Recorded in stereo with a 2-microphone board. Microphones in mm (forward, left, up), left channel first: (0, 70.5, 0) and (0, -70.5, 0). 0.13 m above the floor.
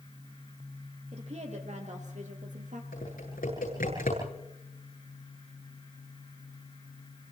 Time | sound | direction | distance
1.1 | a woman speaking | 50° right (ahead or behind) | 5 m
2.9 | typing on a keyboard | 75° left (ahead or behind) | 9.5 m